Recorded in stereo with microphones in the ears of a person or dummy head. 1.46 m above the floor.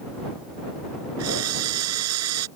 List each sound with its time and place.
1.2 s a drill: 85° right